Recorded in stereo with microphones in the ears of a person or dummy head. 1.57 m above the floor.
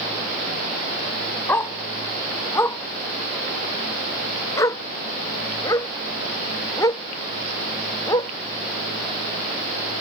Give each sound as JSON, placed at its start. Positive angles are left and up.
{"t": 1.5, "sound": "a dog barking", "side_deg": 15}